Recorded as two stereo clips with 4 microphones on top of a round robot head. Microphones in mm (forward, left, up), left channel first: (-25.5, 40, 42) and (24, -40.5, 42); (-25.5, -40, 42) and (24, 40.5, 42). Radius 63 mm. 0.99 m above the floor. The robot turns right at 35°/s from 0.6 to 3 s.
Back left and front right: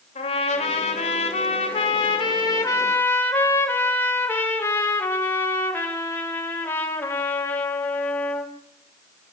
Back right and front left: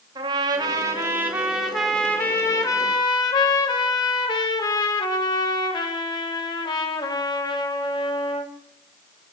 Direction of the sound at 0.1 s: 110° left.